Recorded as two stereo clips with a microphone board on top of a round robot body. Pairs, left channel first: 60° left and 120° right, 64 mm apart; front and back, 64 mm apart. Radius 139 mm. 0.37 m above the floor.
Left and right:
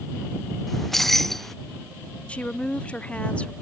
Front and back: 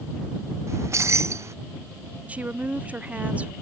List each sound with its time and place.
0.7 s keys jangling: 145° left
2.3 s a woman speaking: 120° left